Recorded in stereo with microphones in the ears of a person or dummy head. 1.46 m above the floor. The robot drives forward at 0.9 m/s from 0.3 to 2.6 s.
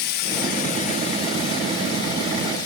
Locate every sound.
0.0 s running water: 55° left (ahead or behind), 1.0 m; by 2.7 s 20° left (ahead or behind), 2.5 m